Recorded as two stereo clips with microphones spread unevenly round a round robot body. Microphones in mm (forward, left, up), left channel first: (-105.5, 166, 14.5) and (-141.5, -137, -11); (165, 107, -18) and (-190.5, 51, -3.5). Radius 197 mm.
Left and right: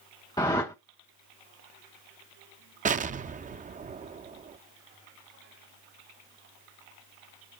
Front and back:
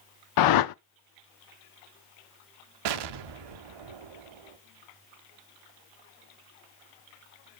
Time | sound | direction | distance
0.4 | a whoosh | straight ahead | 0.6 m
2.9 | an explosion | 160° right | 0.6 m